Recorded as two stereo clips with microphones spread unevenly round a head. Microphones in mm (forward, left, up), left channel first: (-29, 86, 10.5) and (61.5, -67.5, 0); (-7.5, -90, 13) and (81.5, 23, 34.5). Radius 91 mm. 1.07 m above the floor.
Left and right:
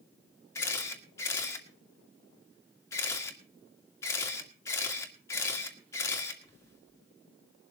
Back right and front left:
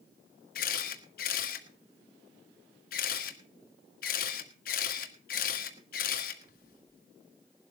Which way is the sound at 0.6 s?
165° right.